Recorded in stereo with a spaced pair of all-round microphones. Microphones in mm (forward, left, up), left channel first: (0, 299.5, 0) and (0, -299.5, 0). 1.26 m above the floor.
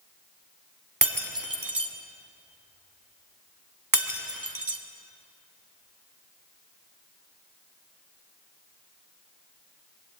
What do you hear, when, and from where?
1.0 s breaking glass: 30° right (ahead or behind), 2.0 m